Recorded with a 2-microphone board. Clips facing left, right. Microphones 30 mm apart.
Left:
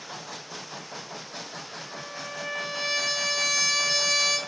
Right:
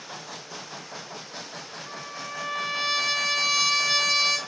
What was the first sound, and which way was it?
A trumpet, 40° right (ahead or behind).